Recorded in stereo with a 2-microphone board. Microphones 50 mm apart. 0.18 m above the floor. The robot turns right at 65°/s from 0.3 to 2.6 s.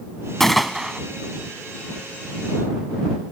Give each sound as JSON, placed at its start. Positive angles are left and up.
{"t": 0.4, "sound": "a gunshot", "azimuth_deg": 170}